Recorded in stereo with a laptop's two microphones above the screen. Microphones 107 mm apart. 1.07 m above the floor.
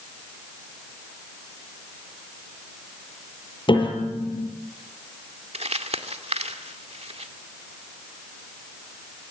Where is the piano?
45° left (ahead or behind), 7.5 m.